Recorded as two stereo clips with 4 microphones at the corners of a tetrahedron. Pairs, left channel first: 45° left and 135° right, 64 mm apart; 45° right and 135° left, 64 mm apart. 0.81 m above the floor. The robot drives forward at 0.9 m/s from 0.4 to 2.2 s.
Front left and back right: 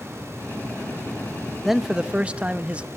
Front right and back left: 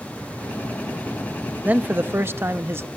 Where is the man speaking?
140° left, 0.9 m; by 2.9 s 165° left, 1.1 m.